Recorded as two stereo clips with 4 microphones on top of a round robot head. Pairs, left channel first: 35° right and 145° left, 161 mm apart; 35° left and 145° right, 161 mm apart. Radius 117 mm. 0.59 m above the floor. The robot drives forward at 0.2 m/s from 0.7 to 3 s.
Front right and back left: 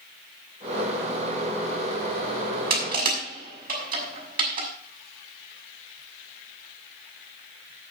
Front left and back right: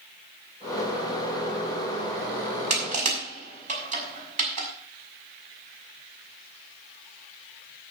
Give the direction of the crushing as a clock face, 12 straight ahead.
6 o'clock.